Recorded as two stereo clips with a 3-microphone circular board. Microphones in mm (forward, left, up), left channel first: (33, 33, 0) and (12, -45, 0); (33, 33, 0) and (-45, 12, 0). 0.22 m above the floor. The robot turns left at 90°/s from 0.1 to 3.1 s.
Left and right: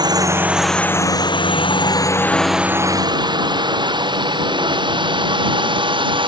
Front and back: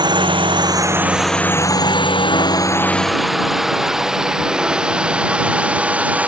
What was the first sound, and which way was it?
A drone, 140° right.